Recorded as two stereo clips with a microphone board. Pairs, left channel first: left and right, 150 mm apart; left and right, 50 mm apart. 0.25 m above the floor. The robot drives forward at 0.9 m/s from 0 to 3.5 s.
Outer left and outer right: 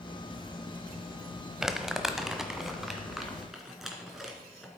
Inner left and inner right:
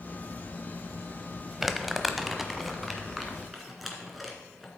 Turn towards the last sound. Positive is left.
turn(degrees=0)  # may be behind; listen again after turning